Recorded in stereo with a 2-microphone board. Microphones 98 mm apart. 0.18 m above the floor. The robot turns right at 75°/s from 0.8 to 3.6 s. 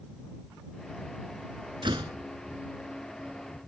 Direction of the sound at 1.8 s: 55° right (ahead or behind).